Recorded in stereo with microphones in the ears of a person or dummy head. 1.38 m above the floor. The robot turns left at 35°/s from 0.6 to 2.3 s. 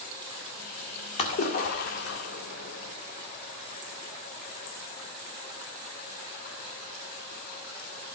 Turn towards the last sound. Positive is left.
turn(degrees=100)